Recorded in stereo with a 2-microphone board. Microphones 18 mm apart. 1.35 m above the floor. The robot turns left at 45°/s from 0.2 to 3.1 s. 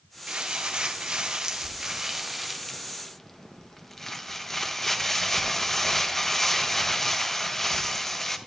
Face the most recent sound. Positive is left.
turn(degrees=165)